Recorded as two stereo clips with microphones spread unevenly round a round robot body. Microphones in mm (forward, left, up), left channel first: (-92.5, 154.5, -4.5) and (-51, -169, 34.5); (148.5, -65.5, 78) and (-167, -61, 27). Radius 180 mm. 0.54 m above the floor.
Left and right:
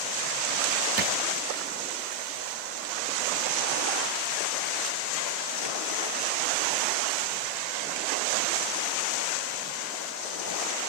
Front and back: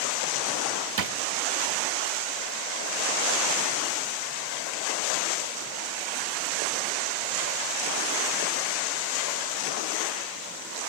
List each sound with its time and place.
1.0 s a drawer: 145° right, 0.8 m